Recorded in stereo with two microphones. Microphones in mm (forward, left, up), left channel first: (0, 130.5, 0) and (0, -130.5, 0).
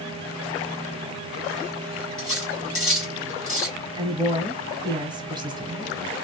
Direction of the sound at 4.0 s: 15° right (ahead or behind).